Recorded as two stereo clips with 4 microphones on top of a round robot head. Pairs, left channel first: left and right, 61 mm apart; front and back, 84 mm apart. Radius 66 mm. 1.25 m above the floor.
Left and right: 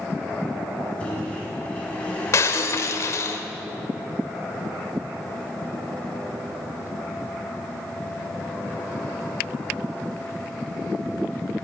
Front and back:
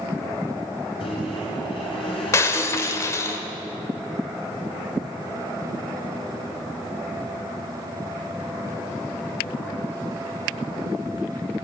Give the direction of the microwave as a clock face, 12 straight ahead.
11 o'clock.